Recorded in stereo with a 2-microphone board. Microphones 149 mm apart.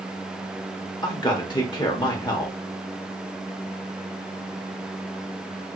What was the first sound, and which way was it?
A man speaking, 30° left (ahead or behind).